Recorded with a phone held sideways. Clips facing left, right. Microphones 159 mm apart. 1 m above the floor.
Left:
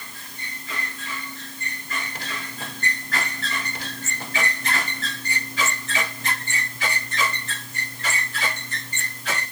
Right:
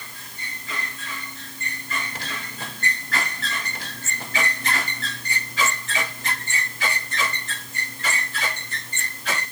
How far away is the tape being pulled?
I don't hear tape being pulled.